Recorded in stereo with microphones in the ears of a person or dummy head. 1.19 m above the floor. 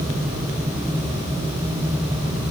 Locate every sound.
Only background noise.